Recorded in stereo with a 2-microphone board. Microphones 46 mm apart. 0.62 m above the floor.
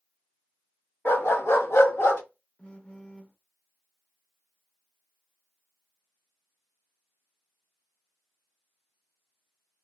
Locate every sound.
1.1 s a dog barking: 50° left (ahead or behind), 0.9 m; by 2.2 s 65° left (ahead or behind), 1.2 m
2.6 s a phone buzzing: 30° left (ahead or behind), 0.6 m